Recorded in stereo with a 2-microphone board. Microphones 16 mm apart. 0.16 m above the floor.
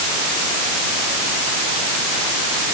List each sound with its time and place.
Only background noise.